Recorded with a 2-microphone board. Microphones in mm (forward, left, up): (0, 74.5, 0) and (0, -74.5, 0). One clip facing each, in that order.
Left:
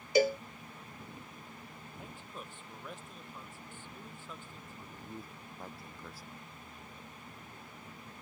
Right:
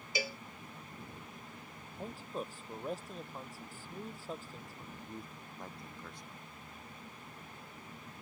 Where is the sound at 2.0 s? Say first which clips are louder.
Right 8 dB; 40° right (ahead or behind).